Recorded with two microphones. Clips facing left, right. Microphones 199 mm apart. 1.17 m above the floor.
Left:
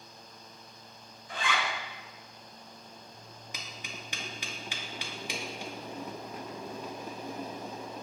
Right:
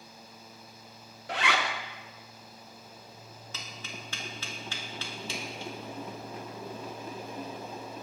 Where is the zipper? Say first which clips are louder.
Right 3 dB; 75° right (ahead or behind), 0.5 m.